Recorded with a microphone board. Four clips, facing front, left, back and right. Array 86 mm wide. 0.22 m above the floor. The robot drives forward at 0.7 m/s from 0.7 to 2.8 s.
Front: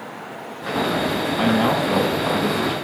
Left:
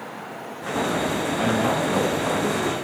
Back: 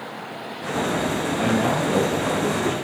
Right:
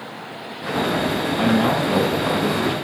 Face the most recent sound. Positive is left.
turn(degrees=-55)